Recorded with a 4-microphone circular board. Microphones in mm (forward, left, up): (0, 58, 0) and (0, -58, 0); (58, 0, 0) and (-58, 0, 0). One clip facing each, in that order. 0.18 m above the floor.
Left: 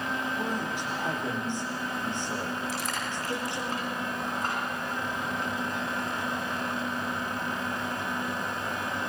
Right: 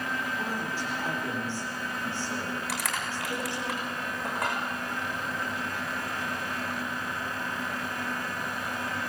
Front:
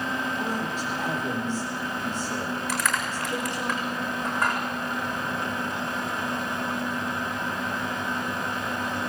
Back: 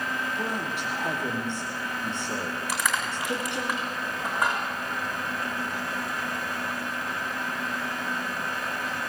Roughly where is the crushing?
Right.